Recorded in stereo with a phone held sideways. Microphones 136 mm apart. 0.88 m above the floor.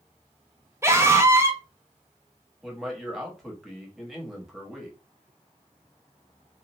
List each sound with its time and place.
0.8 s a scream: 20° right (ahead or behind), 0.6 m
2.6 s a man speaking: centre (ahead or behind), 1.0 m